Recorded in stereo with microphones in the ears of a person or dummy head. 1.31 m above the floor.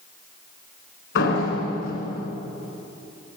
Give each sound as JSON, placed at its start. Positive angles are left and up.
{"t": 1.1, "sound": "a door slam", "side_deg": 70, "distance_m": 5.0}